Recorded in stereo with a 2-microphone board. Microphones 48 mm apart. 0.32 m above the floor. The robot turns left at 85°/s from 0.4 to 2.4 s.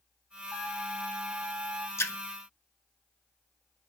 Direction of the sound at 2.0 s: 80° left.